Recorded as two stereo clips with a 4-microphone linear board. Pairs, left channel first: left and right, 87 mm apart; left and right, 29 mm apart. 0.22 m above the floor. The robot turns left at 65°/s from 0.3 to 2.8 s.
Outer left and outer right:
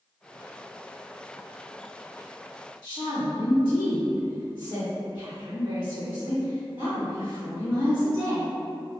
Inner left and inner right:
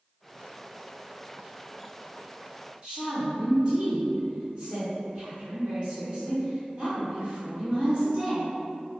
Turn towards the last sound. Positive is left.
turn(degrees=-30)  # may be behind; listen again after turning